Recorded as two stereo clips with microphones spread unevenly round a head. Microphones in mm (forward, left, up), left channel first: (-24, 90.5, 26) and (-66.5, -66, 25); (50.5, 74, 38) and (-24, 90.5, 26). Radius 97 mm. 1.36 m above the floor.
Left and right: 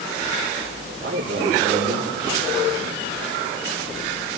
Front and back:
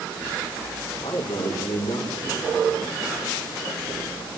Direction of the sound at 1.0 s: 65° right.